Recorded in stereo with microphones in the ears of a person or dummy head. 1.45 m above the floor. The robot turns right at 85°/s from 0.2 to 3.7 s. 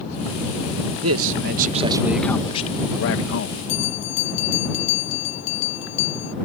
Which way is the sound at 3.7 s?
65° left (ahead or behind).